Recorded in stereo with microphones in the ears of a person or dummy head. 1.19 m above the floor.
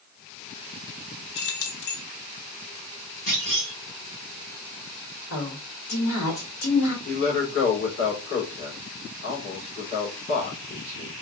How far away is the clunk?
About 2 m.